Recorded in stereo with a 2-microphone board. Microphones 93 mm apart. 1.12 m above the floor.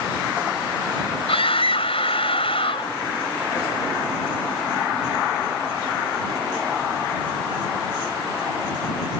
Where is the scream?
90° left.